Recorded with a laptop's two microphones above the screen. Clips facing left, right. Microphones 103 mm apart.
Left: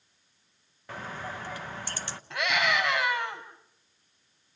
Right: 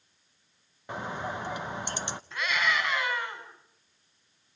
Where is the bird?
20° right (ahead or behind), 0.6 m.